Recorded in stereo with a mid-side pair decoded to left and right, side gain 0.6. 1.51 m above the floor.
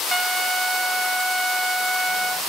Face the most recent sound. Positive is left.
turn(degrees=0)